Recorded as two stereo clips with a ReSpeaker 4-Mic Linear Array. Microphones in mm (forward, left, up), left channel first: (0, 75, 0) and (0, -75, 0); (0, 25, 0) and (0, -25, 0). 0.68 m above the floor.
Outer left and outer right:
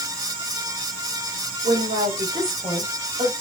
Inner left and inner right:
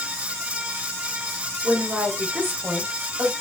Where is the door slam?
No door slam in this recording.